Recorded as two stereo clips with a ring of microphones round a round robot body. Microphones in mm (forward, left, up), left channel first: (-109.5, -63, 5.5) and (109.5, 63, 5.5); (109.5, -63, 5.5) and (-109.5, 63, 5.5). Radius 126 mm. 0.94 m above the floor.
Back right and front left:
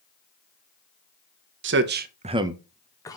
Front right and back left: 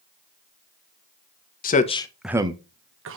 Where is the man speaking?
15° left, 1.0 m; by 3.2 s 140° left, 1.1 m.